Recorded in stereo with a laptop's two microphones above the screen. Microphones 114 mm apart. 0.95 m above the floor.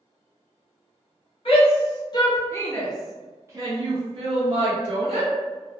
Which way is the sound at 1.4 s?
55° left (ahead or behind).